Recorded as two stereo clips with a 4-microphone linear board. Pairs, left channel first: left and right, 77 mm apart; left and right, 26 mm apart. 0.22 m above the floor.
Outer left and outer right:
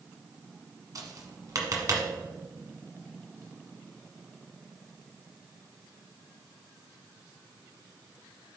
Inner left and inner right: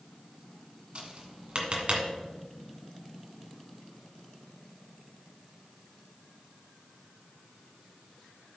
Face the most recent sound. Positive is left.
turn(degrees=-50)  # may be behind; listen again after turning